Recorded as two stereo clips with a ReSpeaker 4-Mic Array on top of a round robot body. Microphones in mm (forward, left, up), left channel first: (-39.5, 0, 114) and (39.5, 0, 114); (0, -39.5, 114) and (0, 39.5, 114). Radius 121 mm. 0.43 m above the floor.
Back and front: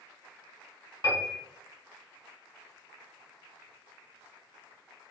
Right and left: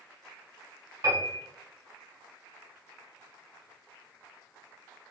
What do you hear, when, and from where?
1.0 s a piano: 135° left, 1.6 m